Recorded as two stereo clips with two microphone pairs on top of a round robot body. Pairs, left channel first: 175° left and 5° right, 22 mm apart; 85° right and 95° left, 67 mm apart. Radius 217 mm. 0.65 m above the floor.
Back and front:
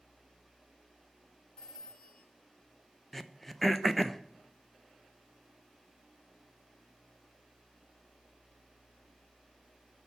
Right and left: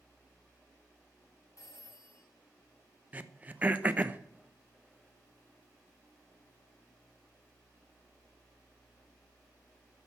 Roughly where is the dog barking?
No dog barking in this recording.